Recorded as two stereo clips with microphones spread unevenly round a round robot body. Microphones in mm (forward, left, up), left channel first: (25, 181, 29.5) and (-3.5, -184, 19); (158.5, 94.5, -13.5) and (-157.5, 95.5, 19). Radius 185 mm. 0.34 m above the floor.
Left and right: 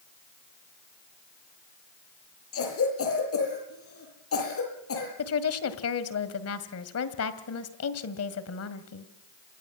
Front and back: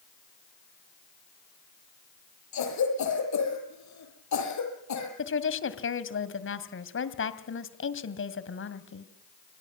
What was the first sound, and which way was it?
A cough, 30° left.